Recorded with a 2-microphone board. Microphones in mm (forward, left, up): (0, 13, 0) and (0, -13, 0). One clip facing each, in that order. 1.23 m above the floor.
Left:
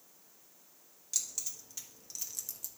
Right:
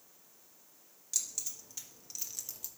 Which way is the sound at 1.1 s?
10° left (ahead or behind).